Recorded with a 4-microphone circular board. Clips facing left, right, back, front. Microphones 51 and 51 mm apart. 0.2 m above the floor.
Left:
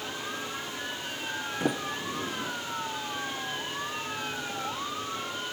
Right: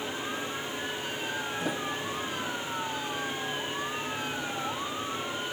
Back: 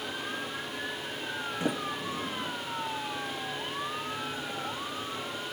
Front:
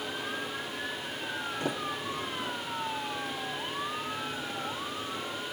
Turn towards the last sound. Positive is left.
turn(degrees=115)